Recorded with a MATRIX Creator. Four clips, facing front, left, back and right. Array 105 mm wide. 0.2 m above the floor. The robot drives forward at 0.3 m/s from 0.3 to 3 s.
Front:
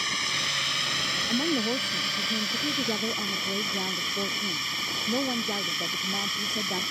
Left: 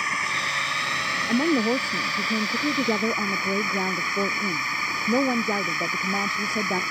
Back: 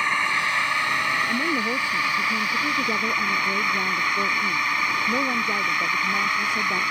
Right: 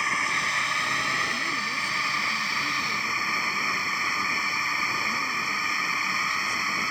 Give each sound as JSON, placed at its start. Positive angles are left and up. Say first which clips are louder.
{"t": 0.0, "sound": "a drone", "louder": "even, back 9 dB", "azimuth_deg": 180}
{"t": 1.3, "sound": "a woman speaking", "louder": "left 10 dB, back 3 dB", "azimuth_deg": 90}